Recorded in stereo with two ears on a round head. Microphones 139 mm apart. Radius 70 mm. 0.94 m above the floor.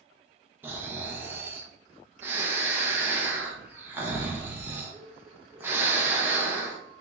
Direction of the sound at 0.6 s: 15° right (ahead or behind).